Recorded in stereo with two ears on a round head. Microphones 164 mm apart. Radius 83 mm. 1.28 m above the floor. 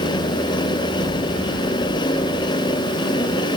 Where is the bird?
No bird in this recording.